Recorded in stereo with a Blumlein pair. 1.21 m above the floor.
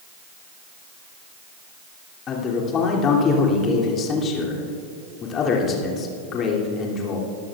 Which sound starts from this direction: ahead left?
A man speaking, at 2.3 s.